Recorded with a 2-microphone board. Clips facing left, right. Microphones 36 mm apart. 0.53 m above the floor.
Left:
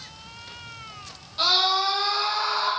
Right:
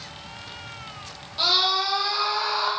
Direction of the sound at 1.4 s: 5° right (ahead or behind).